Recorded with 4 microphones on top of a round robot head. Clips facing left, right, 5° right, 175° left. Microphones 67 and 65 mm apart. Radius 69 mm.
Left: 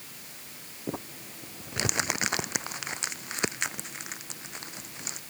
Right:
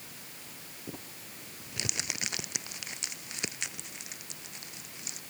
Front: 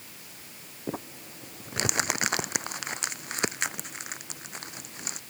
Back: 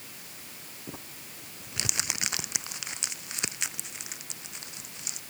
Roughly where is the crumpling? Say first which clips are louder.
Left 9 dB, front 9 dB; ahead left.